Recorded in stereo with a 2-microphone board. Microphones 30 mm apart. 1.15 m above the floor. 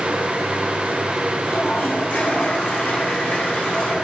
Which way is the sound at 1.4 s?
85° left.